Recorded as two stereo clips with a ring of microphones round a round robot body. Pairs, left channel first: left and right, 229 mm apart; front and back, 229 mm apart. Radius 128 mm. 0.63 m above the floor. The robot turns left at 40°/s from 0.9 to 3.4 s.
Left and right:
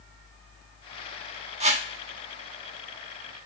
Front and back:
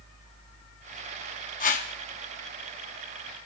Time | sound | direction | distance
1.6 | a whoosh | 40° right | 1.2 m